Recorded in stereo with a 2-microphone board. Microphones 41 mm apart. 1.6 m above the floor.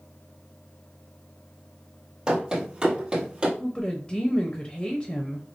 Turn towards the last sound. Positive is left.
turn(degrees=25)  # may be behind; listen again after turning